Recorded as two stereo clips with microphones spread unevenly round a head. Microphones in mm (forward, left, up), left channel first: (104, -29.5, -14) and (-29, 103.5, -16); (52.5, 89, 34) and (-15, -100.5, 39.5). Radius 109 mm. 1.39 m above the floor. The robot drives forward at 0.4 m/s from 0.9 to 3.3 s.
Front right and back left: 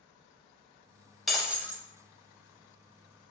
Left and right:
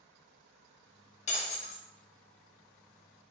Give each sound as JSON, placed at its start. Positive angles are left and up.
{"t": 1.3, "sound": "breaking glass", "azimuth_deg": 45, "distance_m": 0.6}